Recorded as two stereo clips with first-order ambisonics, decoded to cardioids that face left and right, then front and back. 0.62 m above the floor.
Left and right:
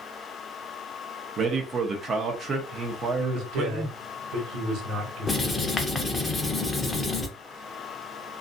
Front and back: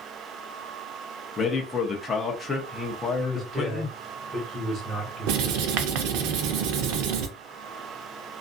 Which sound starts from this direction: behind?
Writing, at 5.3 s.